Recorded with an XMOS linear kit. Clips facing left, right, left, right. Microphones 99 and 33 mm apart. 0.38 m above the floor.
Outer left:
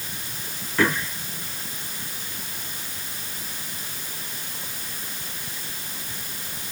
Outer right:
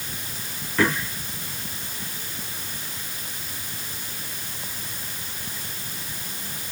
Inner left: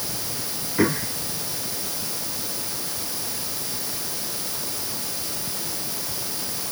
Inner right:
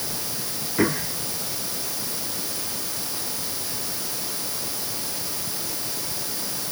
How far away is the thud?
No thud in this recording.